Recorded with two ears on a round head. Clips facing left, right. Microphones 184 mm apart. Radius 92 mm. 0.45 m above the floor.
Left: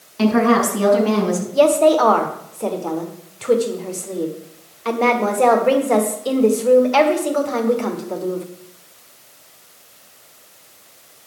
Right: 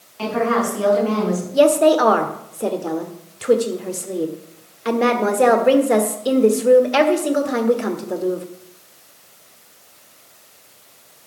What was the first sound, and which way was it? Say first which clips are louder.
A woman speaking: left 5 dB; 55° left (ahead or behind).